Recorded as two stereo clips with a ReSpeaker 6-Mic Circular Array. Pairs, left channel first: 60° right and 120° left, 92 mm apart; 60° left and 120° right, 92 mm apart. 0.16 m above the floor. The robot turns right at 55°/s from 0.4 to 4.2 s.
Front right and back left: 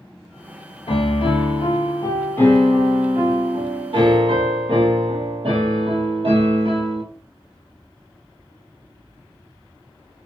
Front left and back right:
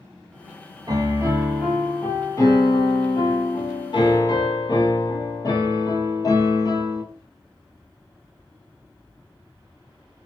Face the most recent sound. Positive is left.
turn(degrees=105)